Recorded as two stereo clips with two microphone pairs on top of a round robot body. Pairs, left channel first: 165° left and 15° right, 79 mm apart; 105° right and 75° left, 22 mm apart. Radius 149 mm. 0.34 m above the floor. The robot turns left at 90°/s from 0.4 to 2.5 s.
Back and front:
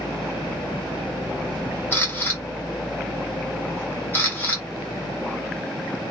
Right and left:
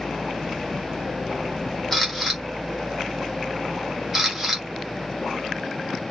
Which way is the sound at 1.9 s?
Straight behind.